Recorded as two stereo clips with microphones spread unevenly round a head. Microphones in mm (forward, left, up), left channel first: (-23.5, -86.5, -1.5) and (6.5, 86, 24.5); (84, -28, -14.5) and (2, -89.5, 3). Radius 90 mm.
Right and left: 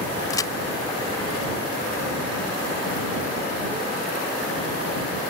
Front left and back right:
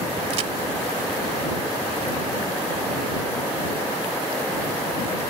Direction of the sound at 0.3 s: 175° right.